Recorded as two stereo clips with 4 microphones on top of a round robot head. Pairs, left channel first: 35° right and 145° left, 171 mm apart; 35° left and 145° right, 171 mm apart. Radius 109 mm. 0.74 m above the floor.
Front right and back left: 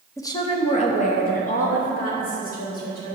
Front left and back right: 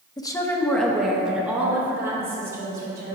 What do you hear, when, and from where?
0.2 s a woman speaking: 10° left, 1.0 m; by 3.1 s 70° right, 3 m